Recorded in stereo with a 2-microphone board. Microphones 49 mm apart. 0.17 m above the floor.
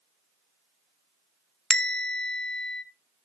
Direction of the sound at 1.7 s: 10° left (ahead or behind).